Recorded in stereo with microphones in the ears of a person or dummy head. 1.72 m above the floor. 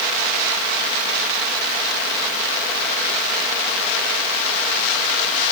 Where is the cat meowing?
No cat meowing in this recording.